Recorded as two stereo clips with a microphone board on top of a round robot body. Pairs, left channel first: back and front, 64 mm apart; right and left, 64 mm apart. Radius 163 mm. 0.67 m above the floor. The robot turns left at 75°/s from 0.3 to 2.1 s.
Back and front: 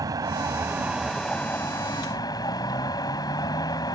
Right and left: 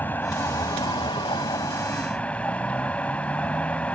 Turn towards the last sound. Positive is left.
turn(degrees=-160)